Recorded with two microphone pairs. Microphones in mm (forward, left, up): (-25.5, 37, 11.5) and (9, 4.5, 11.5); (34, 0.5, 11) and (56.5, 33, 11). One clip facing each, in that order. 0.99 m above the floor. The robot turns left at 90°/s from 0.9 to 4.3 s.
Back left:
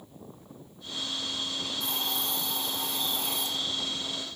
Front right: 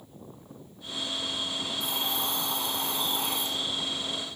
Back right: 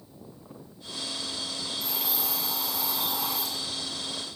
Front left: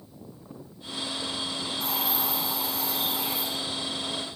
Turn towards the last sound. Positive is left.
turn(degrees=-175)